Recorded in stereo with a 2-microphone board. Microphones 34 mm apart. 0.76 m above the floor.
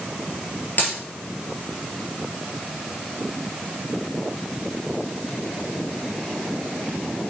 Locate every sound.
0.8 s a dropped coin: 55° left (ahead or behind), 3 m